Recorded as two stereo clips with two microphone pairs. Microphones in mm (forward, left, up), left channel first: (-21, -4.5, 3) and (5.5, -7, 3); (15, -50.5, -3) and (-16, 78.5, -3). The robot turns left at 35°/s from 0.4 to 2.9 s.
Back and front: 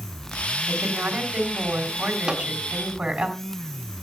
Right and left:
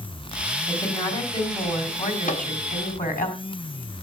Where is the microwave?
70° right, 1.7 m; by 2.5 s 80° right, 1.7 m.